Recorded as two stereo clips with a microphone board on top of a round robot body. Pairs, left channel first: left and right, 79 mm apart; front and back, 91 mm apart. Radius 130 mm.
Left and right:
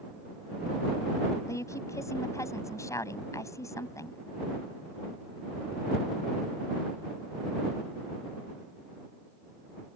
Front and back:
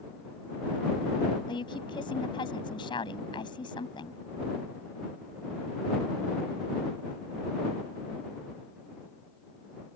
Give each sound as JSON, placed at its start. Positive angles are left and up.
{"t": 1.5, "sound": "a woman speaking", "azimuth_deg": 35}